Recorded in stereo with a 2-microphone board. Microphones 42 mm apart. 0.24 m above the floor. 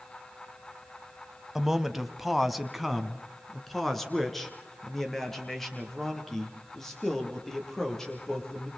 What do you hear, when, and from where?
1.6 s a man speaking: 10° right (ahead or behind), 1.4 m; by 8.7 s 10° left (ahead or behind), 7 m